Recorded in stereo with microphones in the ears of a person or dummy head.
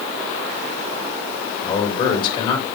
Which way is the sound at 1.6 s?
30° left (ahead or behind).